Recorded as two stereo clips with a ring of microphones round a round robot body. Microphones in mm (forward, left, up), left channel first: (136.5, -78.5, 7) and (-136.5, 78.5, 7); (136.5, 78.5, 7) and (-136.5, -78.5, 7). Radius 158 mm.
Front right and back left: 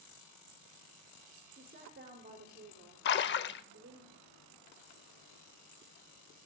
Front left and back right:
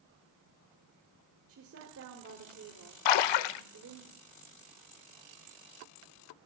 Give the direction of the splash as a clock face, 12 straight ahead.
11 o'clock.